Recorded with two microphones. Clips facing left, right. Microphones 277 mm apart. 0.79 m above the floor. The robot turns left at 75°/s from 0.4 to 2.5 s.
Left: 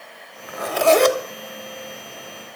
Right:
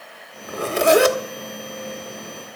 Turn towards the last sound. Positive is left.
turn(degrees=75)